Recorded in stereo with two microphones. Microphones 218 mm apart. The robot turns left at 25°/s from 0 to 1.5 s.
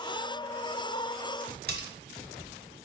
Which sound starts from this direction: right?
Cutlery clinking, at 1.7 s.